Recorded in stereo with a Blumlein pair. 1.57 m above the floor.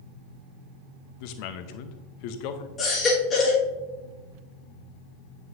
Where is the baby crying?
25° left, 1.7 m.